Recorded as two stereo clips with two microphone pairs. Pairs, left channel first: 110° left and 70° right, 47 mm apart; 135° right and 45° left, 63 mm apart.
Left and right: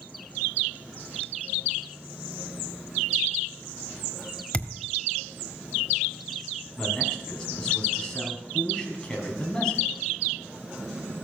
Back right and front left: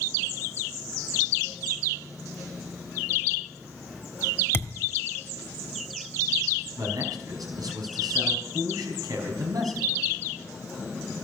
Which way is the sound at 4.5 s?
Straight behind.